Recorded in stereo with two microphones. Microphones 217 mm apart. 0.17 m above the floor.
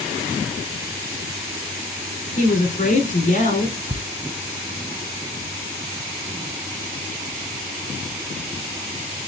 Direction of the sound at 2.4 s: 35° left (ahead or behind).